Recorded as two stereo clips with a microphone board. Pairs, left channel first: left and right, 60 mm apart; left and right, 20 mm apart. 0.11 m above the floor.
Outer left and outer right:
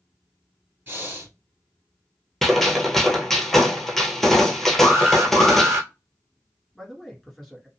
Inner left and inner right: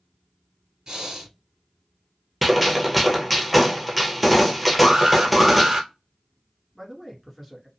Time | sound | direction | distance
0.9 | breathing | 35° right (ahead or behind) | 2 m
2.4 | a gunshot | centre (ahead or behind) | 0.9 m
4.8 | an alarm | 45° right (ahead or behind) | 1.7 m
6.8 | a man speaking | 5° left (ahead or behind) | 1.3 m